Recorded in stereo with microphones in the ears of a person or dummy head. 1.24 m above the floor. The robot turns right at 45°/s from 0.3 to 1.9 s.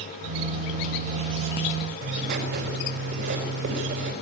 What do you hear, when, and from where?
2.0 s writing: 60° right (ahead or behind), 4.5 m